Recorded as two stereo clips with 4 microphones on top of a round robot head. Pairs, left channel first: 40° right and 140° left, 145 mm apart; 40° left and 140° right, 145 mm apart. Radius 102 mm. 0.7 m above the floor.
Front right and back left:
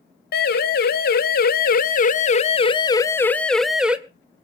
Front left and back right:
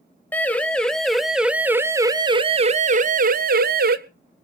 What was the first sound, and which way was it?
A siren, 40° right.